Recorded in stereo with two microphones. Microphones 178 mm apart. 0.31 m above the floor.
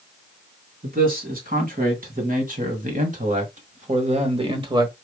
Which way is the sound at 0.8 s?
50° right (ahead or behind).